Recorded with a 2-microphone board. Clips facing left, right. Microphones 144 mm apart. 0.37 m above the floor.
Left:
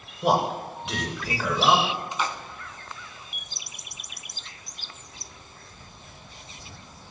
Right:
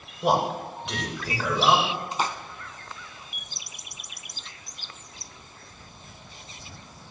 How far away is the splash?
About 0.6 m.